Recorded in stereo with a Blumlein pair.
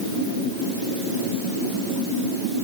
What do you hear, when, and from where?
Only background noise.